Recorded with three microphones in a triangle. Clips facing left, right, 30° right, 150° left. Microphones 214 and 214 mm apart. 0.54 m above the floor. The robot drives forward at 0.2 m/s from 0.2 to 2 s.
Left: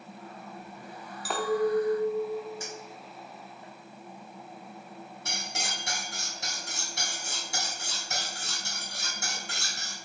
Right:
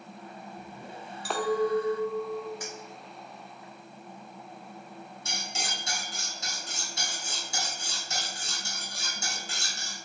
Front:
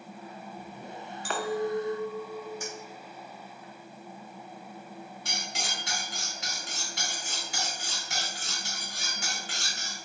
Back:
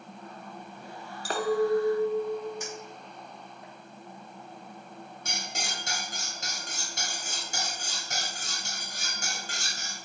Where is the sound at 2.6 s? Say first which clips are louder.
Even, even; 150° left, 1.8 m.